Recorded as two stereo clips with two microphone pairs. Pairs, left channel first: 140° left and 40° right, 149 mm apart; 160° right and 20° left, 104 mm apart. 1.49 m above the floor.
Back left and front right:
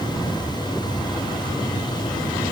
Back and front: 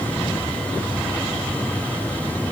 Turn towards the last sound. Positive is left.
No sound to turn to.